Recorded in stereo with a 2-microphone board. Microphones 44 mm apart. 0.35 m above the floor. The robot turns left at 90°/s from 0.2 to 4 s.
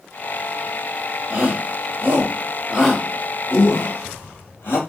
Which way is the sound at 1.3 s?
25° right (ahead or behind).